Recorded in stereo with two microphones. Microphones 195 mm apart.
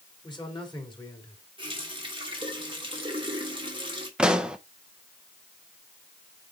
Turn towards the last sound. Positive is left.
turn(degrees=-5)  # may be behind; listen again after turning